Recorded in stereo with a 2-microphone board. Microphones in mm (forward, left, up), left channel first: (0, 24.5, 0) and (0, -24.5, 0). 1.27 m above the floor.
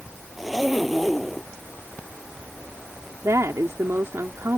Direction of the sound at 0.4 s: Centre (ahead or behind).